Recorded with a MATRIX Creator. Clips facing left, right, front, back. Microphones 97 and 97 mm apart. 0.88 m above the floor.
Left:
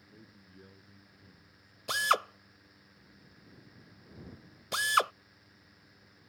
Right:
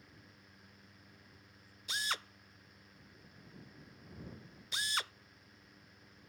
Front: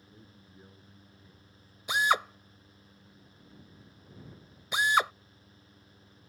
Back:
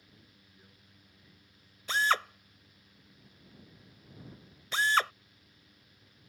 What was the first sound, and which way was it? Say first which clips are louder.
A man speaking: left 5 dB, front 8 dB; 65° left.